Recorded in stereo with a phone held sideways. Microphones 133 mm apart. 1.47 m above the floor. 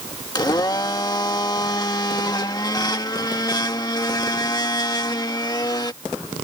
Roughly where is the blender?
Left.